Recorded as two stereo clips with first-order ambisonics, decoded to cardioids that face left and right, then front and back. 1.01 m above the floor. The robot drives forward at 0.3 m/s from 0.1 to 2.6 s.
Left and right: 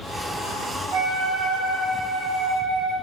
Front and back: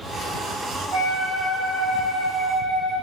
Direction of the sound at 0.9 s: 125° right.